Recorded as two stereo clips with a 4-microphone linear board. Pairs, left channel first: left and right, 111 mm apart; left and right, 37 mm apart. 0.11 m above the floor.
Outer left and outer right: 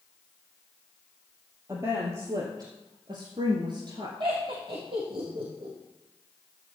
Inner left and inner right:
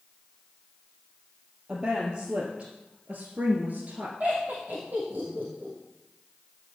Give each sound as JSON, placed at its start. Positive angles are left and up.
{"t": 1.7, "sound": "a woman speaking", "side_deg": -25, "distance_m": 3.5}
{"t": 4.2, "sound": "laughter", "side_deg": -50, "distance_m": 3.5}